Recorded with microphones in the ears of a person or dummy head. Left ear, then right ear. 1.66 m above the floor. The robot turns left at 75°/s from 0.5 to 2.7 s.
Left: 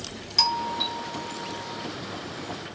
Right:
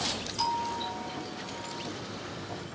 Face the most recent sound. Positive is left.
turn(degrees=-90)